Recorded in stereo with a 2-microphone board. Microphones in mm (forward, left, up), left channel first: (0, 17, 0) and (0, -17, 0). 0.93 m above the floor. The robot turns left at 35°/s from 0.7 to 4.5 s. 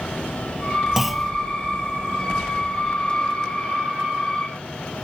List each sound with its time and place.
1.0 s a clunk: 10° right (ahead or behind); by 1.3 s 5° right (ahead or behind)